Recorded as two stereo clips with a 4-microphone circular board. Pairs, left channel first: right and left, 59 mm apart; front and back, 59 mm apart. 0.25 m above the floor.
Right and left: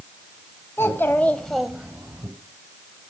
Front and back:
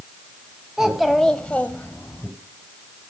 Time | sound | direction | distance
0.8 | a child speaking | 105° right | 1.2 m